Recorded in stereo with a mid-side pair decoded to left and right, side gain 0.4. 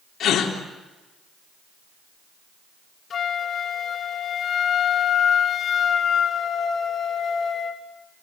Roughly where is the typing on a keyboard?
I don't hear typing on a keyboard.